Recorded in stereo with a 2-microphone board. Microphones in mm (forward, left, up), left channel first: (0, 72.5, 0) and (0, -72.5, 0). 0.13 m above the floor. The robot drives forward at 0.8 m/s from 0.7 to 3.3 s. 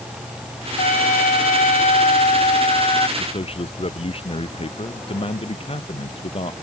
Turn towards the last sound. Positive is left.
turn(degrees=40)  # may be behind; listen again after turning